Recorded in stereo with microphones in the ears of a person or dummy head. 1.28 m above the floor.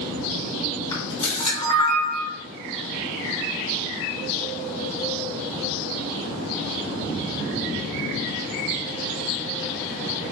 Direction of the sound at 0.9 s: 30° left (ahead or behind).